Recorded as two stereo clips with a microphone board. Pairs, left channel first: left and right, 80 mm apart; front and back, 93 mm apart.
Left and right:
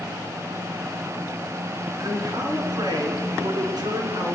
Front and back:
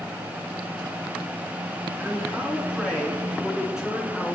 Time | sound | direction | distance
2.0 | a man speaking | 115° right | 3 m